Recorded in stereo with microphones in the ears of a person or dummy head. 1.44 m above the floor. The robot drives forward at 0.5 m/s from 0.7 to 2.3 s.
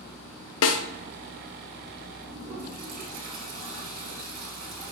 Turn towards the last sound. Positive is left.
turn(degrees=-50)  # may be behind; listen again after turning